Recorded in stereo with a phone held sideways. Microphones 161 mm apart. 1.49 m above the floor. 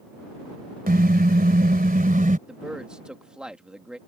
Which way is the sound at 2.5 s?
5° right (ahead or behind).